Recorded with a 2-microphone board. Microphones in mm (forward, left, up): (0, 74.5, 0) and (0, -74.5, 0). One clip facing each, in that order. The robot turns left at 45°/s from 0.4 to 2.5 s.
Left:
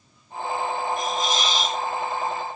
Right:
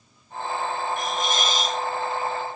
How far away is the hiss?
About 1.8 m.